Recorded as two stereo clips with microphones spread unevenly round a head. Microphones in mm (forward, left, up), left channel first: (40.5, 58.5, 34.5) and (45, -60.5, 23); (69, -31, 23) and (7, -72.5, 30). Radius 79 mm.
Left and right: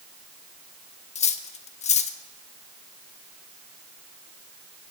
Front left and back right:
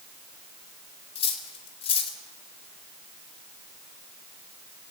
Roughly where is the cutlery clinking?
Ahead left.